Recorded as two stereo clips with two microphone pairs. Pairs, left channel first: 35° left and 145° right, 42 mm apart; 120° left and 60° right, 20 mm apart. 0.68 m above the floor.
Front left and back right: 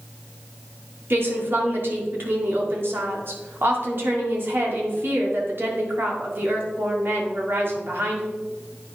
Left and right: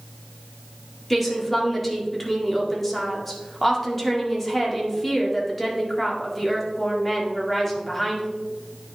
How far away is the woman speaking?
About 1.8 m.